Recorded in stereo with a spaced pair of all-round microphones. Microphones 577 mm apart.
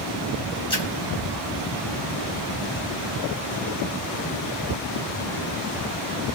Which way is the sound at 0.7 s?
10° left (ahead or behind).